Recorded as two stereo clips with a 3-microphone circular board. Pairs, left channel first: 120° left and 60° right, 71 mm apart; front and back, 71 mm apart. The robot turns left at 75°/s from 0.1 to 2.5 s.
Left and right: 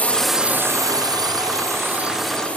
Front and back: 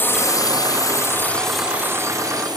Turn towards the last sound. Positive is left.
turn(degrees=-170)